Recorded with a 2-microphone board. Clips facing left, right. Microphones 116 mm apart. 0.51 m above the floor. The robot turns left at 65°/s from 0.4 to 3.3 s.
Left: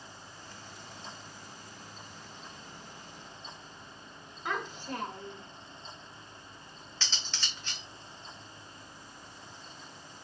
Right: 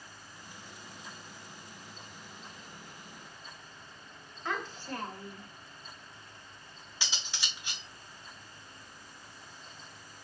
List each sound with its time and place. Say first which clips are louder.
4.5 s a child speaking: left 1 dB; 15° left (ahead or behind), 0.8 m
7.0 s cutlery clinking: right 1 dB; 10° right (ahead or behind), 0.7 m